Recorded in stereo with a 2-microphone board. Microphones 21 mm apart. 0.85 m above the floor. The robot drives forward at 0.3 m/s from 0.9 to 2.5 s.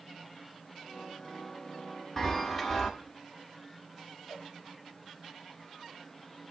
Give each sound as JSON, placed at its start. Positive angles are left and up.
{"t": 2.2, "sound": "a chime", "side_deg": 15, "distance_m": 1.0}
{"t": 4.3, "sound": "a cowbell", "side_deg": 10, "distance_m": 5.0}